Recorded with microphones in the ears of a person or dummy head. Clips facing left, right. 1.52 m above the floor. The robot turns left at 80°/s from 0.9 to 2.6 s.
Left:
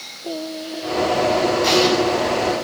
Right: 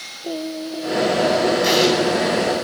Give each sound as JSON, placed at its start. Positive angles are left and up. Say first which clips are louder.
{"t": 0.2, "sound": "singing", "louder": "right 2 dB", "azimuth_deg": -5, "distance_m": 1.0}
{"t": 1.6, "sound": "an explosion", "louder": "left 1 dB", "side_deg": -5, "distance_m": 10.0}